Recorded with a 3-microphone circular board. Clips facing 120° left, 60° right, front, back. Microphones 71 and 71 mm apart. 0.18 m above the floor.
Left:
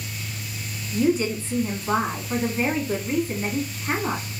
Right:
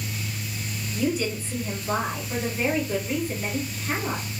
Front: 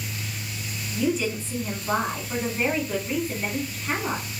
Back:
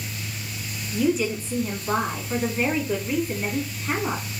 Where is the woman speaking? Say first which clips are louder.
Left 5 dB, back 2 dB; 90° left, 1.3 m.